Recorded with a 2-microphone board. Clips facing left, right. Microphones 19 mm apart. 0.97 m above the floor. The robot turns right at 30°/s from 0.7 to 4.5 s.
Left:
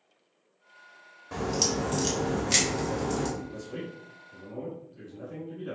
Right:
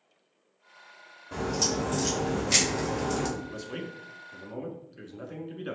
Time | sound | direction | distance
1.3 | a crack | 135° left | 1.6 m
3.4 | a man speaking | 90° right | 1.4 m